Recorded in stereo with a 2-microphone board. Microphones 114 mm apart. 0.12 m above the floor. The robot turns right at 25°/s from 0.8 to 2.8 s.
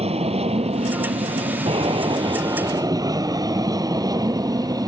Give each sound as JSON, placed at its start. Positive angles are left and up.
{"t": 0.0, "sound": "an aircraft", "azimuth_deg": -85}